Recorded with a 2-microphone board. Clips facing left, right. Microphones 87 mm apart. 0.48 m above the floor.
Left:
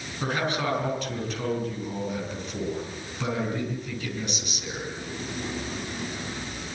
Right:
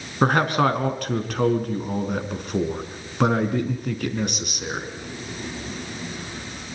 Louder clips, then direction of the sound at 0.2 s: Right 8 dB; 60° right (ahead or behind).